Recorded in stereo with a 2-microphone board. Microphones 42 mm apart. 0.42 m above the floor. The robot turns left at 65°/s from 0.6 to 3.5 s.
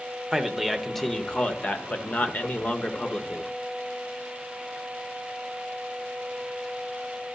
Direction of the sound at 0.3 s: 170° right.